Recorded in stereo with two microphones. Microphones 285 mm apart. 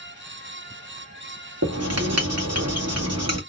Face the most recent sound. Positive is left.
turn(degrees=-60)  # may be behind; listen again after turning